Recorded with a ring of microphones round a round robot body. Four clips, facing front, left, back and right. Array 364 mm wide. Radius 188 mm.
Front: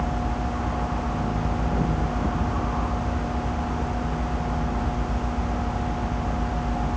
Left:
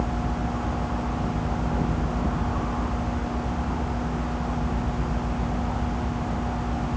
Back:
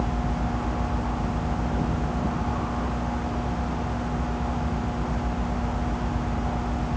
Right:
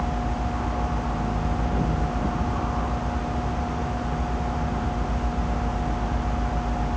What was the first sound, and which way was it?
Only background noise.